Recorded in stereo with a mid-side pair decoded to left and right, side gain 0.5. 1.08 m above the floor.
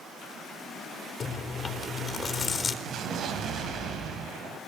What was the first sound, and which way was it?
Chewing, 30° left.